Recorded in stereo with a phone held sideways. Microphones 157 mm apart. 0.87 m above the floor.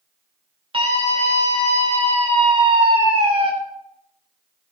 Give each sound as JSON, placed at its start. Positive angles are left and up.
{"t": 0.7, "sound": "a scream", "side_deg": -35, "distance_m": 3.0}